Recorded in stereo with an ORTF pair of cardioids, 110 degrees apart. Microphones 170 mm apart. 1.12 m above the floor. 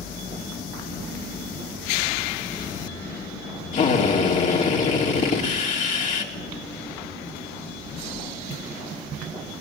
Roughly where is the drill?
Ahead left.